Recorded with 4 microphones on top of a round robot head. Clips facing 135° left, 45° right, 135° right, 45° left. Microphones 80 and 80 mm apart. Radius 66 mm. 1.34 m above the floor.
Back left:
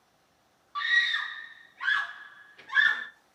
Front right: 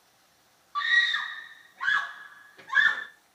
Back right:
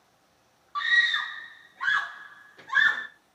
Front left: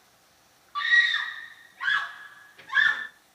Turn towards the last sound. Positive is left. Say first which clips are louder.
# front right 2 dB, front left 1 dB
turn(degrees=-90)